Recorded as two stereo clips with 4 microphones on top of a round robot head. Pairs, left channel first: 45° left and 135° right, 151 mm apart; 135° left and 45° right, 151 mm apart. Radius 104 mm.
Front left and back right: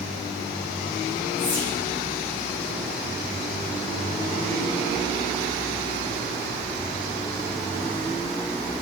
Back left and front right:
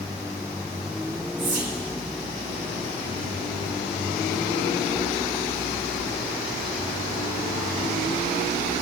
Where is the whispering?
15° right, 1.9 m.